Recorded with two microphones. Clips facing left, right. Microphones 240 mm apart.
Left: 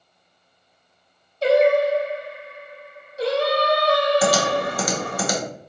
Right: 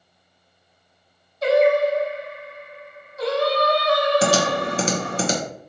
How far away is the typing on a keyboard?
About 0.7 m.